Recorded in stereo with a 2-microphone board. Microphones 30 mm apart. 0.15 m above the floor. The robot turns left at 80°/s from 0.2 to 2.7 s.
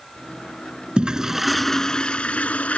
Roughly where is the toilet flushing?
Behind right.